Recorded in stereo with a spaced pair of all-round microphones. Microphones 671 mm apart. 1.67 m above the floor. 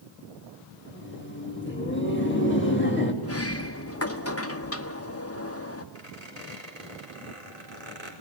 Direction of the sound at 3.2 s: 20° left (ahead or behind).